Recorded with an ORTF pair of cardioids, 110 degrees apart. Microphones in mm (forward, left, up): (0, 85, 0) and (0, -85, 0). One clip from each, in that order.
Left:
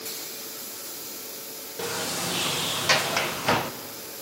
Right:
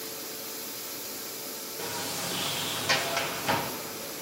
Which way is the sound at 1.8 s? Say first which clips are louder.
Left 5 dB; 35° left.